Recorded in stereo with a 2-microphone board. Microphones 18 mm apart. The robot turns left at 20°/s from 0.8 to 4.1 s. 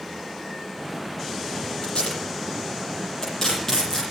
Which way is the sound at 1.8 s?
60° left (ahead or behind).